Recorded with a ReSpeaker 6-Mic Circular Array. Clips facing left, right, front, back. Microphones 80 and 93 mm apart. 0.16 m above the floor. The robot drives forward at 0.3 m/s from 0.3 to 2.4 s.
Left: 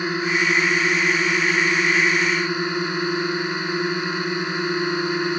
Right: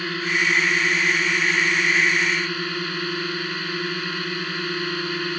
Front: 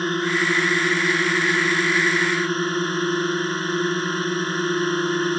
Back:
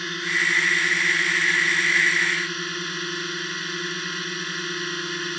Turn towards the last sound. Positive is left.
turn(degrees=30)